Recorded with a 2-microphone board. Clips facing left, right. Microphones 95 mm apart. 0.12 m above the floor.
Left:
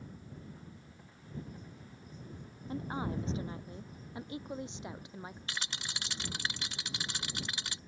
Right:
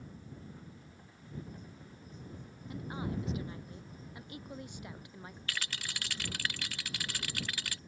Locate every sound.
2.7 s a woman speaking: 35° left (ahead or behind); by 5.4 s 20° left (ahead or behind)
5.5 s a rattle: 25° left (ahead or behind)